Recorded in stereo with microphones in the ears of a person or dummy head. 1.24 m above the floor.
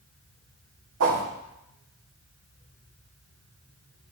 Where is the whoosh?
60° right (ahead or behind), 1.9 m.